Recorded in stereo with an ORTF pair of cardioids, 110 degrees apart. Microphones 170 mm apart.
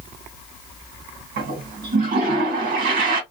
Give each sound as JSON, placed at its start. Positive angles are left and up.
{"t": 1.4, "sound": "a toilet flushing", "azimuth_deg": -65, "distance_m": 1.6}